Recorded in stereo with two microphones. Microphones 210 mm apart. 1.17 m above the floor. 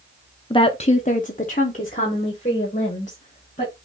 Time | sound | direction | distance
0.5 | a woman speaking | 25° left (ahead or behind) | 0.5 m